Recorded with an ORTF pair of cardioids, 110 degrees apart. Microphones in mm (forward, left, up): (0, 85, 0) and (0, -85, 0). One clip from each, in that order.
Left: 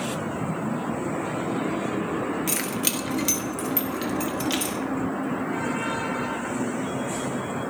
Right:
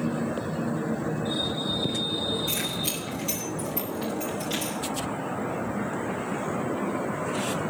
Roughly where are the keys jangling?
Left.